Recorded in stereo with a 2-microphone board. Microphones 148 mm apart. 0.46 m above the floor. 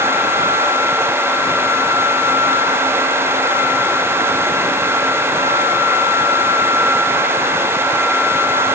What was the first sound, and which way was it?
Only background noise.